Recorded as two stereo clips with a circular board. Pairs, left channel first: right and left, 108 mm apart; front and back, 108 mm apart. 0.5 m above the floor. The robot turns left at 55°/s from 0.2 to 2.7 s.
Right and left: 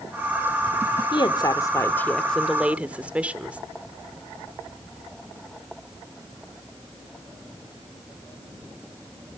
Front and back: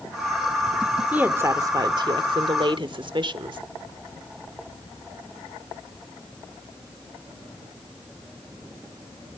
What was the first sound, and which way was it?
A woman speaking, 110° right.